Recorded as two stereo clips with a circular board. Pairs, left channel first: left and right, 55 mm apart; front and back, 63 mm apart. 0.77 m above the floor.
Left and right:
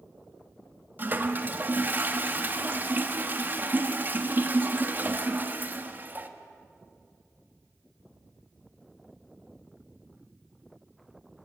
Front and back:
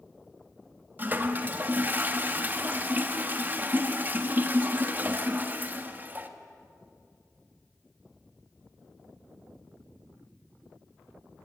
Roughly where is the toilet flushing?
Behind right.